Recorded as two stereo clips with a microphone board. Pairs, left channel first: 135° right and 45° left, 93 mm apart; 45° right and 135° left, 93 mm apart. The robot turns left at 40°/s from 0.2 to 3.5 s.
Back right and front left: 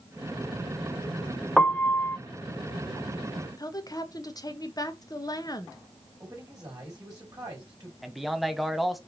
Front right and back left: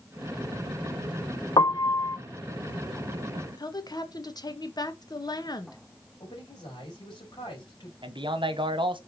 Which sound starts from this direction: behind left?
A man speaking, at 8.0 s.